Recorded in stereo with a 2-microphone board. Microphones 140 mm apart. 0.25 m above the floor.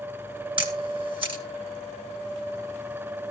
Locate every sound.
0.6 s a camera shutter: 40° right (ahead or behind), 2.5 m